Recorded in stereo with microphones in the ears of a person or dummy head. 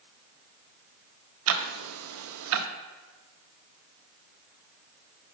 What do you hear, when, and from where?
1.5 s ticking: 80° right, 0.5 m